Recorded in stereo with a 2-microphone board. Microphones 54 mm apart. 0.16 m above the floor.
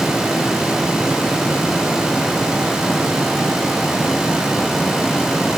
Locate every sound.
Only background noise.